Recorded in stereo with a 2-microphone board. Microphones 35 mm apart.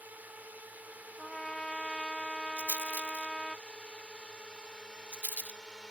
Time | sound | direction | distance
0.0 | a drone | 55° right (ahead or behind) | ?
1.2 | a trumpet | 10° left (ahead or behind) | ?
2.6 | a rattle | 50° right (ahead or behind) | ?